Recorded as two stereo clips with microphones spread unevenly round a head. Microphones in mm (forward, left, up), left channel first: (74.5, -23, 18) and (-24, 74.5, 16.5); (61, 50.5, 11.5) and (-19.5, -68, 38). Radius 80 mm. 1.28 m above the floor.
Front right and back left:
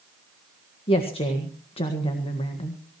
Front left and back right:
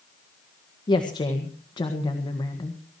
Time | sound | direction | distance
0.9 | a woman speaking | straight ahead | 1.7 m